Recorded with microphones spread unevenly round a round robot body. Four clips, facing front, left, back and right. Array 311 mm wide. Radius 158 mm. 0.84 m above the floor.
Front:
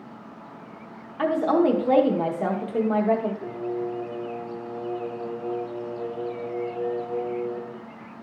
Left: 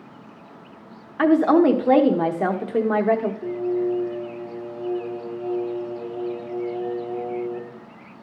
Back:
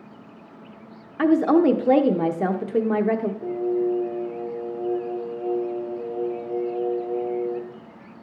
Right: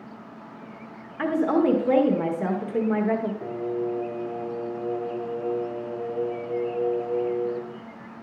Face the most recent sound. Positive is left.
turn(degrees=-105)